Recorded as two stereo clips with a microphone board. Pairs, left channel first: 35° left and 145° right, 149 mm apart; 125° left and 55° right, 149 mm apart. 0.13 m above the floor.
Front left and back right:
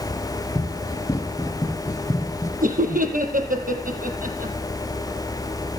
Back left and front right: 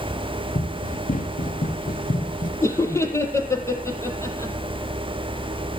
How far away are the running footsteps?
About 3 m.